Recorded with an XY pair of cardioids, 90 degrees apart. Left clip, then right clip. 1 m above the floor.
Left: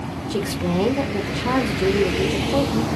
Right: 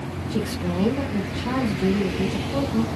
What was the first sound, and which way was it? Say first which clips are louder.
A woman speaking: left 4 dB; 65° left.